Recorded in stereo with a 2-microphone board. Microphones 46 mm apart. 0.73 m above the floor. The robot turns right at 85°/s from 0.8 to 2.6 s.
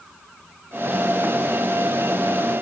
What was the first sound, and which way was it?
Only background noise.